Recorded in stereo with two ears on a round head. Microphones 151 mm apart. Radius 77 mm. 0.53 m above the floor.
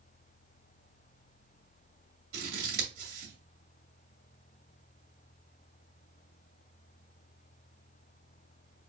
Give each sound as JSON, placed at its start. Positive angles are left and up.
{"t": 2.3, "sound": "scissors", "side_deg": -55, "distance_m": 2.0}